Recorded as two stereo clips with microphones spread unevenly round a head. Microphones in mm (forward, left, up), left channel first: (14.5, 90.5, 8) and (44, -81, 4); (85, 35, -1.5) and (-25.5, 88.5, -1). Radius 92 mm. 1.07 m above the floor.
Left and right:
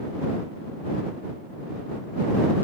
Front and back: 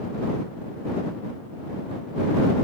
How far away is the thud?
I don't hear a thud.